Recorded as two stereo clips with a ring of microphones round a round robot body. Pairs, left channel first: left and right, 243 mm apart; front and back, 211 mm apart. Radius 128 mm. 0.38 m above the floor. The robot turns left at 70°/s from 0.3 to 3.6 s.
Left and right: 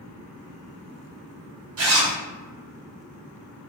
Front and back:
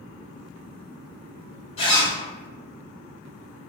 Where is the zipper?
65° right, 1.0 m; by 2.1 s 90° right, 1.0 m.